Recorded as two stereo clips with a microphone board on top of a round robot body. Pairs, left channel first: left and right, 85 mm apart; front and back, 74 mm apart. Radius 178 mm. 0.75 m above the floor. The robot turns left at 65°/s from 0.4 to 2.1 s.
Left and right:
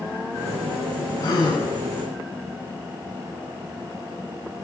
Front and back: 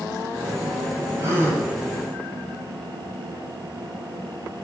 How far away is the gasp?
About 8.5 m.